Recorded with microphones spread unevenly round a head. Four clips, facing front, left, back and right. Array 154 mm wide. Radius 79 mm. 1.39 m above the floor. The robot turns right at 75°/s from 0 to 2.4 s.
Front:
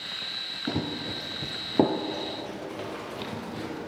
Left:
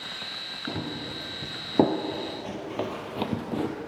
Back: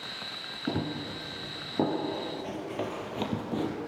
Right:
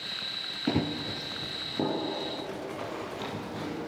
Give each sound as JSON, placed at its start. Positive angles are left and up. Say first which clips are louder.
{"t": 0.7, "sound": "running footsteps", "louder": "right 5 dB, front 1 dB", "azimuth_deg": -85, "distance_m": 1.8}